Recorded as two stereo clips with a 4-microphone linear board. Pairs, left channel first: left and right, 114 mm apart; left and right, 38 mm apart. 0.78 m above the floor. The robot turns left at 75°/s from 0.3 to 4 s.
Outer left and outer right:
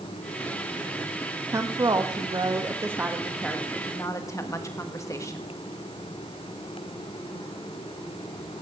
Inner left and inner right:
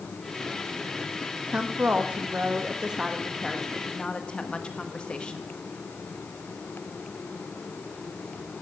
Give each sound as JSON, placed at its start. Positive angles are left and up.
{"t": 1.5, "sound": "a woman speaking", "azimuth_deg": -40, "distance_m": 1.2}